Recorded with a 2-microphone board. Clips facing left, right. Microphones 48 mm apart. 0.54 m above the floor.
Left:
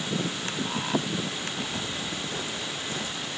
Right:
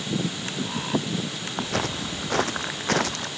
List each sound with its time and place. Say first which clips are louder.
1.6 s footsteps: right 5 dB; 80° right; by 3.3 s 85° right